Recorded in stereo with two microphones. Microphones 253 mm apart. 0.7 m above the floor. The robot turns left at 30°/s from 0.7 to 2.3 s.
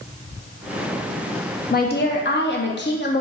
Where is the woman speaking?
35° left (ahead or behind), 0.7 m; by 3.2 s 45° left (ahead or behind), 0.7 m.